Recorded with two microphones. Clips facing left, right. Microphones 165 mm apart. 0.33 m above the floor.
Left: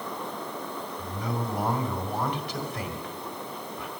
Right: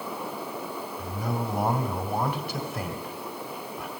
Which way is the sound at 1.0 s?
5° right (ahead or behind).